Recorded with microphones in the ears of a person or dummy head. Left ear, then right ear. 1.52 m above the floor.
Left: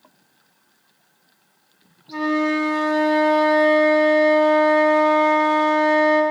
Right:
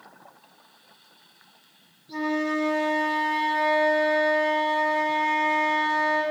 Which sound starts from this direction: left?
A flute, at 2.1 s.